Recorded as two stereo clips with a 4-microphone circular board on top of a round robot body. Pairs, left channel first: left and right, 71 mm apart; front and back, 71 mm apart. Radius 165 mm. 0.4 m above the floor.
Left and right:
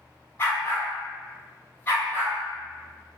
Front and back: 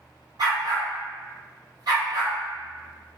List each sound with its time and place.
0.4 s a dog barking: 150° left, 1.5 m